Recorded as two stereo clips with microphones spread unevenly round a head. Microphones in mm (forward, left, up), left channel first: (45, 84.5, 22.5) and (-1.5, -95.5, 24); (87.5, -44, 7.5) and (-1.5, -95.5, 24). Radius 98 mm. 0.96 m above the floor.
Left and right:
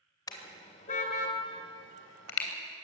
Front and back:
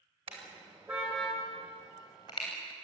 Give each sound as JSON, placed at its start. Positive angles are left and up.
{"t": 0.3, "sound": "a car horn", "azimuth_deg": 145, "distance_m": 2.5}